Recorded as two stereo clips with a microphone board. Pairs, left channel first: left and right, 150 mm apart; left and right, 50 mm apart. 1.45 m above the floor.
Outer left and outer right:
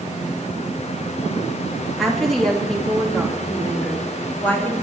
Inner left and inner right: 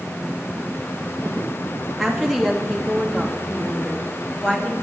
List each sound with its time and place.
2.0 s a woman speaking: centre (ahead or behind), 2 m; by 4.7 s 10° left (ahead or behind), 3.5 m